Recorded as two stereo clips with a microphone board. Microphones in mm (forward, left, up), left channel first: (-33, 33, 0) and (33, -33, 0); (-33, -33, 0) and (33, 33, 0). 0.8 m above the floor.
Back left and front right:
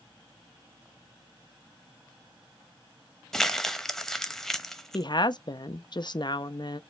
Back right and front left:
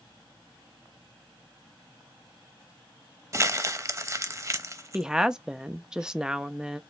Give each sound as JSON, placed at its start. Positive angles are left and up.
{"t": 3.3, "sound": "crumpling", "azimuth_deg": 55, "distance_m": 0.6}
{"t": 4.9, "sound": "a woman speaking", "azimuth_deg": 125, "distance_m": 0.5}